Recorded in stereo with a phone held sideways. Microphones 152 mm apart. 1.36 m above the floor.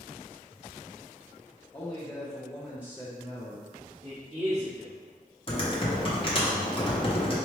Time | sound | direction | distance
1.7 | a man speaking | 25° left (ahead or behind) | 1.3 m
4.0 | a man speaking | 75° right (ahead or behind) | 1.5 m
5.5 | typing on a keyboard | 35° left (ahead or behind) | 0.8 m